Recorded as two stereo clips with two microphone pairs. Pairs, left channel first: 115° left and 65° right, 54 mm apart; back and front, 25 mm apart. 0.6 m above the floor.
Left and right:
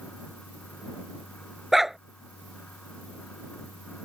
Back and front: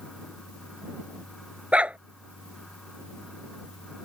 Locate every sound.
1.7 s a dog barking: 25° left